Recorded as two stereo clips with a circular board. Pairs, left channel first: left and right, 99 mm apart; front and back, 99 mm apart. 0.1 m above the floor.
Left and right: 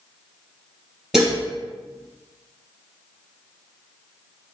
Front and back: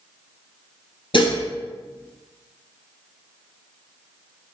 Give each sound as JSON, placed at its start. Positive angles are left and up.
{"t": 1.1, "sound": "dishes clattering", "azimuth_deg": -10, "distance_m": 2.0}